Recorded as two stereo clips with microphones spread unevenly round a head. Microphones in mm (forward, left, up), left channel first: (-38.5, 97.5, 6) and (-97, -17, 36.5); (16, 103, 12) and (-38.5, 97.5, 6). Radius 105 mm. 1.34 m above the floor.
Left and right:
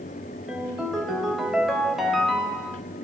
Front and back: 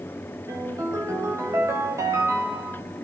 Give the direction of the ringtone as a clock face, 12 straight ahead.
7 o'clock.